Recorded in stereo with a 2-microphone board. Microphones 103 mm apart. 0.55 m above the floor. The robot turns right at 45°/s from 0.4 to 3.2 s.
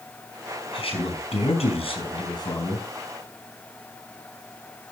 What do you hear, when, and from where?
0.7 s a man speaking: 60° left, 4.5 m; by 2.8 s 155° left, 4.5 m